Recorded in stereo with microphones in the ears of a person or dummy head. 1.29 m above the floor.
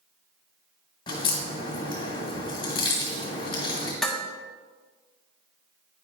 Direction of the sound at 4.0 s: Centre (ahead or behind).